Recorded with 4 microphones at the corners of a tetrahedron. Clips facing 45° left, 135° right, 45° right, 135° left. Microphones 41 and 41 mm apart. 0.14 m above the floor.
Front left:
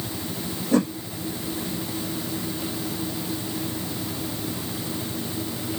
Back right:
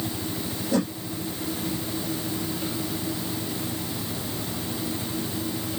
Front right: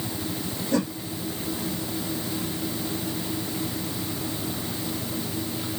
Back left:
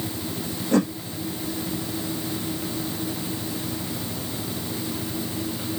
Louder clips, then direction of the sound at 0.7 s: Front left 4 dB, back left 4 dB; 95° left.